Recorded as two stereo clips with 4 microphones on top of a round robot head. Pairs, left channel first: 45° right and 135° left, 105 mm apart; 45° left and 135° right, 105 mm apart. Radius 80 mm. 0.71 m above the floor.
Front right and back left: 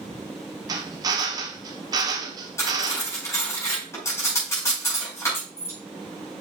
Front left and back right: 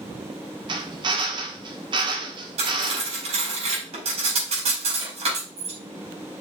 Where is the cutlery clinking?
115° right, 5 m.